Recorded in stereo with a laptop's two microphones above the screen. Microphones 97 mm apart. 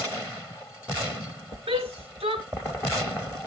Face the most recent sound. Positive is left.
turn(degrees=-85)